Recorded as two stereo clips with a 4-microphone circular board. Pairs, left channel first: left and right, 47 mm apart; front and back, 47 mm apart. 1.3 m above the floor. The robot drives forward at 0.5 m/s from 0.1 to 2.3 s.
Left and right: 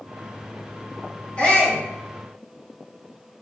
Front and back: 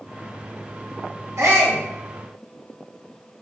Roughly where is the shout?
Behind left.